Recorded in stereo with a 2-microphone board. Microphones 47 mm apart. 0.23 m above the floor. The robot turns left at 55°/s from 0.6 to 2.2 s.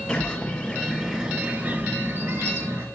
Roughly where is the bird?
Ahead.